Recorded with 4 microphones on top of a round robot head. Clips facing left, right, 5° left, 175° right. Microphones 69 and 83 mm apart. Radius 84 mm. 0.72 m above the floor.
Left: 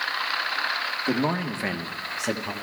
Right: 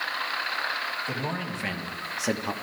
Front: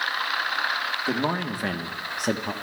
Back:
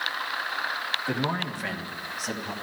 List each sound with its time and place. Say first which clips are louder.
1.1 s a man speaking: left 6 dB, front 3 dB; 65° left, 1.6 m; by 2.5 s 20° right, 1.4 m